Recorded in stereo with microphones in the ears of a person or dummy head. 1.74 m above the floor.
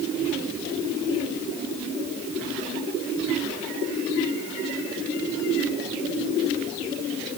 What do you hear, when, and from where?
Only background noise.